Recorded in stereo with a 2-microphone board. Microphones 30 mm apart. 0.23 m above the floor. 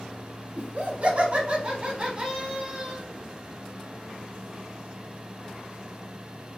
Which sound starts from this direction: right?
Laughter, at 0.6 s.